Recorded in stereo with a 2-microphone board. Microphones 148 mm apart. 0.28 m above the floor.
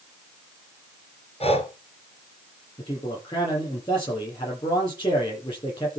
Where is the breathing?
45° left (ahead or behind), 2 m.